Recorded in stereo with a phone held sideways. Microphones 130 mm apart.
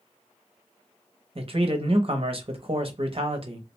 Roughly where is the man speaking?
Right.